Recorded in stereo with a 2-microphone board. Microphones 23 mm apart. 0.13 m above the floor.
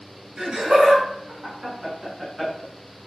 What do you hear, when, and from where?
0.4 s laughter: 45° right (ahead or behind), 1.7 m; by 3.1 s centre (ahead or behind), 1.2 m